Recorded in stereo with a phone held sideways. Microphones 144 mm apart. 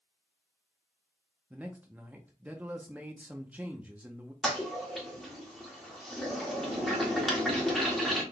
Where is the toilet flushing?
Centre (ahead or behind), 1.4 m.